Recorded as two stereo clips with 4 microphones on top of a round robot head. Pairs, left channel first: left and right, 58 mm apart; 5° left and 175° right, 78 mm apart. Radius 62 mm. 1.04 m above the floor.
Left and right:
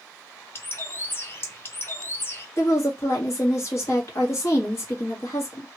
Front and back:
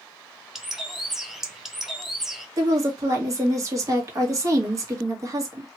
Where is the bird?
100° left, 0.9 m.